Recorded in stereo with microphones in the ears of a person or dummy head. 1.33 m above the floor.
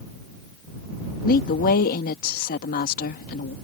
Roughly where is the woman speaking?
Left.